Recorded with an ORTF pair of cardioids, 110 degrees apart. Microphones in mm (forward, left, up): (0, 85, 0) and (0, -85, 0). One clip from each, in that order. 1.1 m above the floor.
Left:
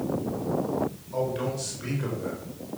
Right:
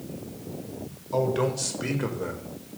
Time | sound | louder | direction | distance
1.1 | a man speaking | right 6 dB | 50° right | 5 m